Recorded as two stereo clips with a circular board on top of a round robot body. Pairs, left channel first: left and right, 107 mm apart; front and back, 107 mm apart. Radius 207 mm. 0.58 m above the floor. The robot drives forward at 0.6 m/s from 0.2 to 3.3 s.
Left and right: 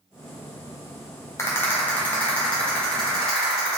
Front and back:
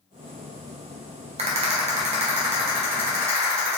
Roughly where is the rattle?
Behind left.